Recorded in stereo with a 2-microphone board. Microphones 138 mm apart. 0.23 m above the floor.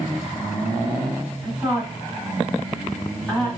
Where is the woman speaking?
10° left (ahead or behind), 1.6 m.